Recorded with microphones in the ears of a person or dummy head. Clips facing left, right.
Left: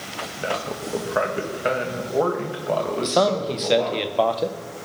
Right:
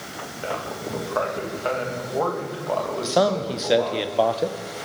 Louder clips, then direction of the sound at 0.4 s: Left 2 dB; 25° left (ahead or behind).